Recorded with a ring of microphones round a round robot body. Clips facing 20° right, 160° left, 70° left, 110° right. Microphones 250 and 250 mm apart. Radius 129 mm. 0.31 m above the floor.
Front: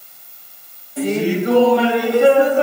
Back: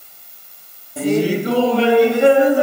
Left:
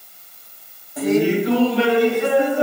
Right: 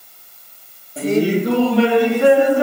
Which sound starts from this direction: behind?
Laughter, at 1.0 s.